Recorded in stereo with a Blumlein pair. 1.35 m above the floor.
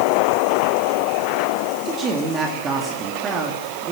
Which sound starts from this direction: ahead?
A man speaking, at 1.9 s.